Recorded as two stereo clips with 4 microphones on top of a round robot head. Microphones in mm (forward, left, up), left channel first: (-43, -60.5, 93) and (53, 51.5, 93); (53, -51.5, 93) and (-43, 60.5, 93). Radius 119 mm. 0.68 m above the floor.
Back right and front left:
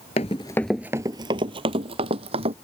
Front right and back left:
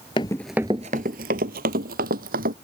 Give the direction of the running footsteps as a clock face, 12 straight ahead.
3 o'clock.